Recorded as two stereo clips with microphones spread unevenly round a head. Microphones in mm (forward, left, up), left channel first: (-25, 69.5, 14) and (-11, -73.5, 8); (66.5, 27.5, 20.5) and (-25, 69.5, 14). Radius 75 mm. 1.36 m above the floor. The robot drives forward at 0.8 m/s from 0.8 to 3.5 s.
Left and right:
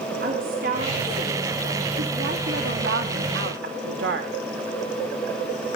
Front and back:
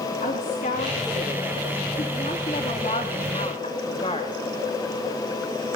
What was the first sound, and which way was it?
A woman speaking, 50° right.